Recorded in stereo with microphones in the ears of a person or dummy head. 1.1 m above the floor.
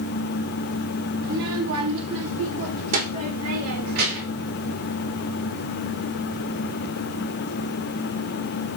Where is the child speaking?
50° right (ahead or behind), 0.8 m; by 4.5 s 85° right, 4 m.